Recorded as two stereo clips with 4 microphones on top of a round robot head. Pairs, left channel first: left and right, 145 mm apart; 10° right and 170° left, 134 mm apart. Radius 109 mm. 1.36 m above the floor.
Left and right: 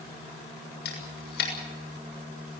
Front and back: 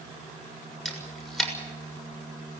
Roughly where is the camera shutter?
Left.